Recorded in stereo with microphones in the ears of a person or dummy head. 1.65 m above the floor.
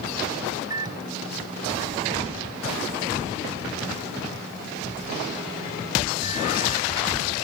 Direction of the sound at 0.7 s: 25° right (ahead or behind).